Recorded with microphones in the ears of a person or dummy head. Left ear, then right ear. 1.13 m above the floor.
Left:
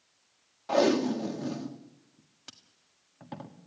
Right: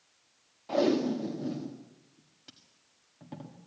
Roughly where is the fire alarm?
I don't hear a fire alarm.